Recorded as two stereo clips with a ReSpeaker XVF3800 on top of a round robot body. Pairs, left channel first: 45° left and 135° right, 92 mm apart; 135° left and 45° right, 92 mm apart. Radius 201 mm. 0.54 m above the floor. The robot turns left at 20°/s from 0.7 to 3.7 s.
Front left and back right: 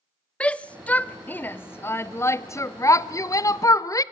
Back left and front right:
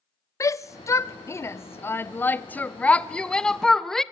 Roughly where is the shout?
Behind left.